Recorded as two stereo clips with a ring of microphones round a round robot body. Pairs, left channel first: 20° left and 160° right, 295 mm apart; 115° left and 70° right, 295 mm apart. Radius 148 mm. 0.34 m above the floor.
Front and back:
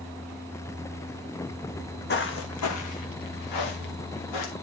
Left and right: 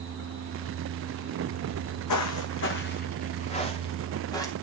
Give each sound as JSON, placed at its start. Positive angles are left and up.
{"t": 1.7, "sound": "footsteps", "azimuth_deg": 100, "distance_m": 1.3}